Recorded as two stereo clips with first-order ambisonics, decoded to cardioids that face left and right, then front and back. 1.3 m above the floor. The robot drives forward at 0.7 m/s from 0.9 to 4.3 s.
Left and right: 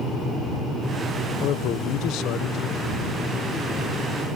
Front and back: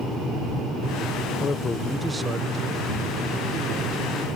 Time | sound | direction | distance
1.4 | a man speaking | 55° left | ?